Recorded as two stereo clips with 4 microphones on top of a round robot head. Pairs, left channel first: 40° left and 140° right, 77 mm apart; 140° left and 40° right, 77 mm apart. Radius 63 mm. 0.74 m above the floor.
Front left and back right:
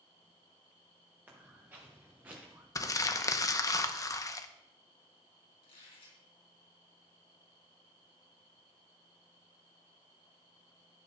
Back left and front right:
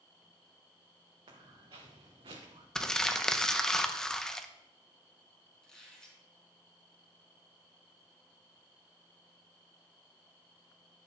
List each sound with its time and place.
1.3 s footsteps: 75° right, 3.5 m; by 2.6 s 70° right, 2.5 m
2.8 s crumpling: 60° left, 0.9 m
5.6 s a squeak: 60° left, 3 m